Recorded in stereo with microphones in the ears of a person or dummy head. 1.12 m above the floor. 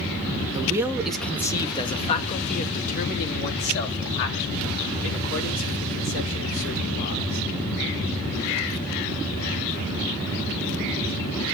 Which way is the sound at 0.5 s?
20° right (ahead or behind).